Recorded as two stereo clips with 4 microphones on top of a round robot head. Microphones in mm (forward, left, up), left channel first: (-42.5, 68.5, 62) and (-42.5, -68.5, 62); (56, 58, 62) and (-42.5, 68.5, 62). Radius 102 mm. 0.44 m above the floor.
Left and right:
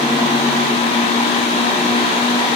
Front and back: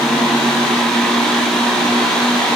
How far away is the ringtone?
No ringtone in this recording.